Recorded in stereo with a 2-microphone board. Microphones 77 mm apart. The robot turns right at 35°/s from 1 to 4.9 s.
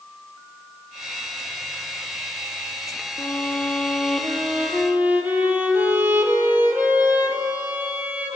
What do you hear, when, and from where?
3.2 s a violin: 145° left, 2.5 m; by 8.4 s 155° right, 2.5 m